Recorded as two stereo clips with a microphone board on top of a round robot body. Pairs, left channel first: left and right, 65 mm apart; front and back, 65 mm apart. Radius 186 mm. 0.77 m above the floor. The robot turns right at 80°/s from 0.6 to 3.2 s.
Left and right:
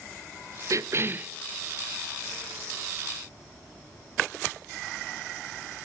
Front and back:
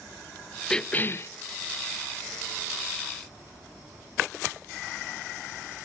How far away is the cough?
About 0.8 m.